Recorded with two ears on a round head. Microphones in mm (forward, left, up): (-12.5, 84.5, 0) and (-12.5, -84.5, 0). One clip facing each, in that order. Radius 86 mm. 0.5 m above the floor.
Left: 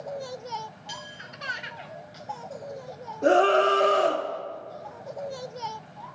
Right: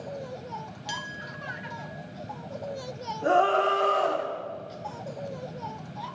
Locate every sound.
0.9 s a clink: 70° right (ahead or behind), 2.0 m
3.2 s a scream: 30° left (ahead or behind), 1.3 m